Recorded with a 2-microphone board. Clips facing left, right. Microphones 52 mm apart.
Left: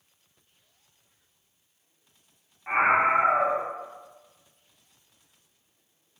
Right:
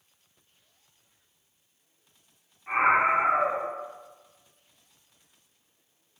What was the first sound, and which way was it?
A scream, 35° left (ahead or behind).